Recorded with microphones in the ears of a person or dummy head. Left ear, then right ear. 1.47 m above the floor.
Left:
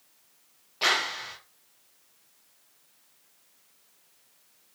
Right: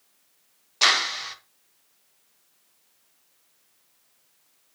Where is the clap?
50° right (ahead or behind), 1.0 m.